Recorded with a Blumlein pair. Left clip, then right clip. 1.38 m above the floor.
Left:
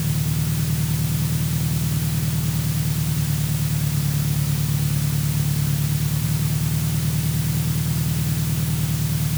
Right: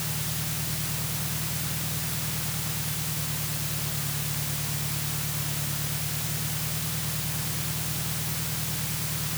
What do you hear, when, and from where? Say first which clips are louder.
0.0 s an engine running: left 4 dB; 30° left